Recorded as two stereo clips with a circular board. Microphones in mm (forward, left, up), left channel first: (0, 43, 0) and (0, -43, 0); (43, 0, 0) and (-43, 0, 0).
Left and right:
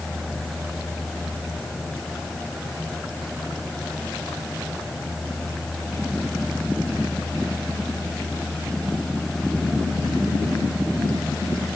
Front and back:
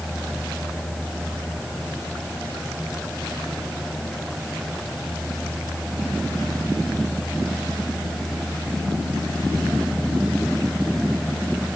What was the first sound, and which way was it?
Only background noise.